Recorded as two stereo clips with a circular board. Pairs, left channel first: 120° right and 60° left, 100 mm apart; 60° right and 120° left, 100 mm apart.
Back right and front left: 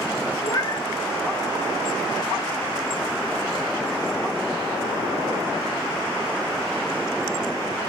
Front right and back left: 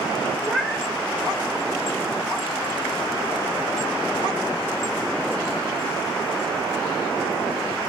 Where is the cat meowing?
160° right, 0.5 m.